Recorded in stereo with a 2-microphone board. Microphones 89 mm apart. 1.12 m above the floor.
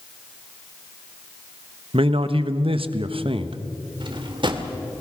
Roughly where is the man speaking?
Right.